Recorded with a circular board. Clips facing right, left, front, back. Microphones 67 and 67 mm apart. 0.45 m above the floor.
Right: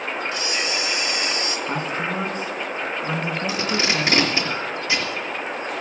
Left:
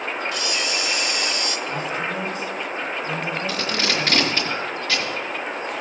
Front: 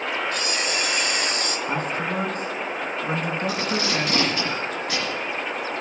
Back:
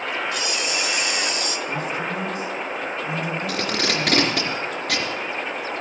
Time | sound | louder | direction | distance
0.3 | a camera shutter | even, even | 30° right | 1.2 m
1.7 | a man speaking | right 2 dB, front 2 dB | 40° right | 4.5 m
3.5 | tape being pulled | right 3 dB, even | 165° right | 4 m